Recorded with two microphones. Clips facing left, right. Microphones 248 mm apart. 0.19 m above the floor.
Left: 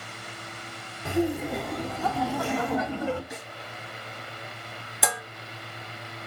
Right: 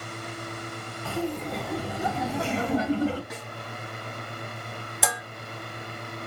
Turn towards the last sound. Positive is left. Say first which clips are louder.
# left 1 dB
turn(degrees=0)  # may be behind; listen again after turning